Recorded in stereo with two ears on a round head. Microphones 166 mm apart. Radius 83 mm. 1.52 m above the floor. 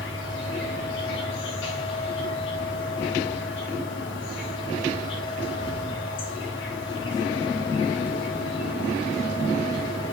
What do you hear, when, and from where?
0.0 s an insect: 70° left (ahead or behind), 2.5 m